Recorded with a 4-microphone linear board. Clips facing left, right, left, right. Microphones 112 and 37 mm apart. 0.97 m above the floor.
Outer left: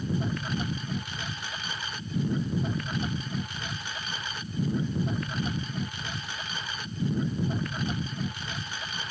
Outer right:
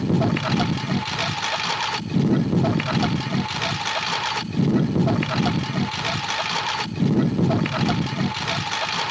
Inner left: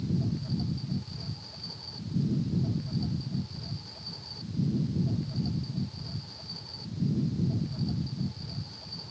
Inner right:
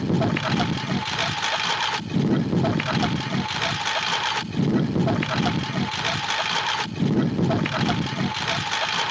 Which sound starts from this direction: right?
A lawn mower, at 0.0 s.